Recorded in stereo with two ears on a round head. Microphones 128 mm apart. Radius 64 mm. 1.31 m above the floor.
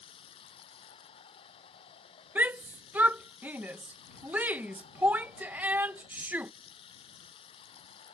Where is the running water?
40° left (ahead or behind).